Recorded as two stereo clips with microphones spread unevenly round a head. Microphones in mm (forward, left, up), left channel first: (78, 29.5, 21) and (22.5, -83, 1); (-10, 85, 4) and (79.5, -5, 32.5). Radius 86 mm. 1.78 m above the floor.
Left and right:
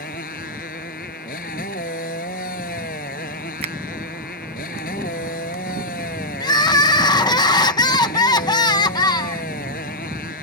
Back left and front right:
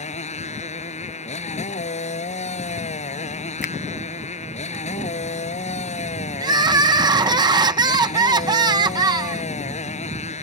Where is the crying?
10° left.